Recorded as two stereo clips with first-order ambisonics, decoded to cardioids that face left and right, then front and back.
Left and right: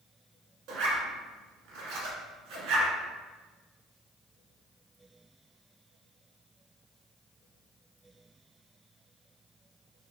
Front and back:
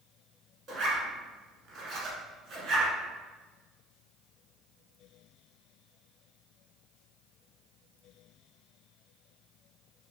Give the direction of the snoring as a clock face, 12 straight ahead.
I don't hear snoring.